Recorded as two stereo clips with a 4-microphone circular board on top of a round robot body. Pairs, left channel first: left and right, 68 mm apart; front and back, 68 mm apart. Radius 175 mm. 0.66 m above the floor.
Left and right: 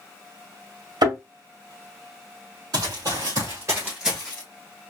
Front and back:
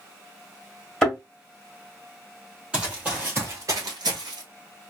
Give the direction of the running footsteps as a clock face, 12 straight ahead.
4 o'clock.